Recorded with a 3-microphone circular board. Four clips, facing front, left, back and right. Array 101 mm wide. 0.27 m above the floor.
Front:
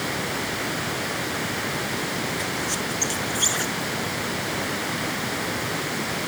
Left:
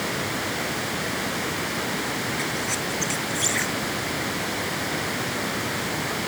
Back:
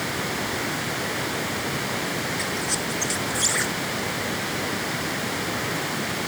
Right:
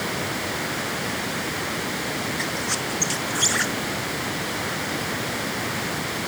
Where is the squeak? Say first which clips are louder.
Even, even; 100° right.